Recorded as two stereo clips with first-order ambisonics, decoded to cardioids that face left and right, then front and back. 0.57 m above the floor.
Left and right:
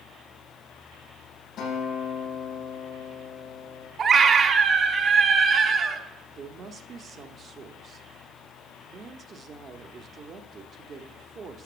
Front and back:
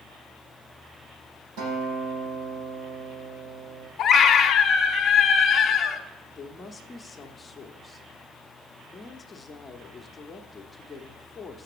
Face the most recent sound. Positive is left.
turn(degrees=-60)